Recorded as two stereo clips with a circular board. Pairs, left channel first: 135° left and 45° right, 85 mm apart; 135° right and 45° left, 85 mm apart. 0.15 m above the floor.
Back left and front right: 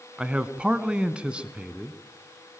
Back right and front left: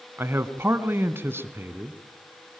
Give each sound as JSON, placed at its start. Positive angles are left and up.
{"t": 0.2, "sound": "a man speaking", "azimuth_deg": 20, "distance_m": 1.1}